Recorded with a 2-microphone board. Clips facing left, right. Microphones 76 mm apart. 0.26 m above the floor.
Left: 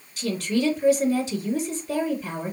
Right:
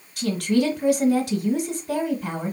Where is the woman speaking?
65° right (ahead or behind), 2 m.